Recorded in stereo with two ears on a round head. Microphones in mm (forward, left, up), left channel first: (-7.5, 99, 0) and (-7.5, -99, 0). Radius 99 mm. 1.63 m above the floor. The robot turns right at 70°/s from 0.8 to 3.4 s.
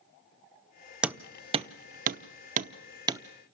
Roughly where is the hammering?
Centre.